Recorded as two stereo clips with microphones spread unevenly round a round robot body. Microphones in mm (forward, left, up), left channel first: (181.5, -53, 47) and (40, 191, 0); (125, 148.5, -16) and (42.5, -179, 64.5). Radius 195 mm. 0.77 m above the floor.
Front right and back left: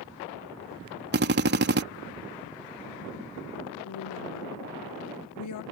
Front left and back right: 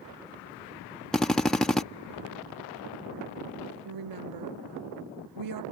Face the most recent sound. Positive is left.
turn(degrees=-85)